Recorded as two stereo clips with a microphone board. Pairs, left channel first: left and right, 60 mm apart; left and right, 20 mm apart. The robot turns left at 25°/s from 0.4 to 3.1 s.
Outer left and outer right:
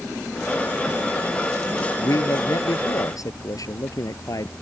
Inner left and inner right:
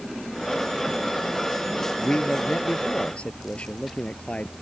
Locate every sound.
2.0 s a man speaking: 70° left (ahead or behind); by 4.5 s 75° left (ahead or behind)